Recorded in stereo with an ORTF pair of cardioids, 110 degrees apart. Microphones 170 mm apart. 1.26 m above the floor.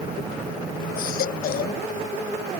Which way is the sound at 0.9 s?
60° left.